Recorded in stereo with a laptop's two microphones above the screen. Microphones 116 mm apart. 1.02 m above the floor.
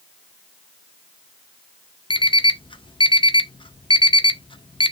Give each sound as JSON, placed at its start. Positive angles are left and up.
{"t": 2.1, "sound": "an alarm clock", "side_deg": 45, "distance_m": 0.5}